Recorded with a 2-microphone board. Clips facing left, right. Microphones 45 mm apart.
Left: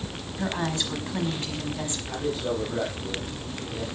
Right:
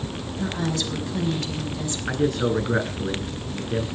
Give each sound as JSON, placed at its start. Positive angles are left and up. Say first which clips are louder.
{"t": 0.4, "sound": "a woman speaking", "louder": "right 1 dB", "side_deg": 25, "distance_m": 5.0}
{"t": 2.1, "sound": "a man speaking", "louder": "right 7 dB", "side_deg": -75, "distance_m": 8.0}